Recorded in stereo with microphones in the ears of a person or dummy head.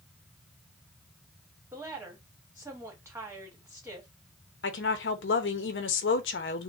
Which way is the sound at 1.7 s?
10° right (ahead or behind).